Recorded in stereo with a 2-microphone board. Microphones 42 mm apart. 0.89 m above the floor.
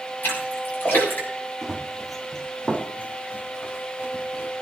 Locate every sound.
0.2 s a splash: 60° left (ahead or behind), 7 m
1.6 s running footsteps: 15° right (ahead or behind), 2.5 m; by 4.5 s 70° left (ahead or behind), 3.5 m